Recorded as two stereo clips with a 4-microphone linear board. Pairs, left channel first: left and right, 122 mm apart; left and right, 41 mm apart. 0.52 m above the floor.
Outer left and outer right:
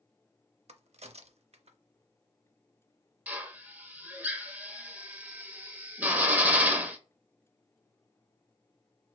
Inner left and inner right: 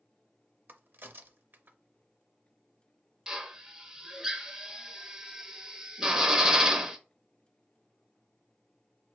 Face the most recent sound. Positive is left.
turn(degrees=-15)  # may be behind; listen again after turning